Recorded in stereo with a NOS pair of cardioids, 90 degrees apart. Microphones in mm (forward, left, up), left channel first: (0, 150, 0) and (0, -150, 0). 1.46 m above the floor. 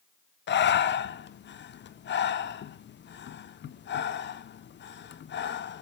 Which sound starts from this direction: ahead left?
Breathing, at 0.5 s.